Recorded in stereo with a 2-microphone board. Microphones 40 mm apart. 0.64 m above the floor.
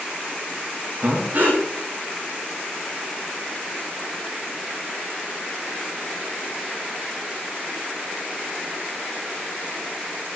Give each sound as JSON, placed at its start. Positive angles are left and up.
{"t": 1.0, "sound": "breathing", "side_deg": -45, "distance_m": 7.0}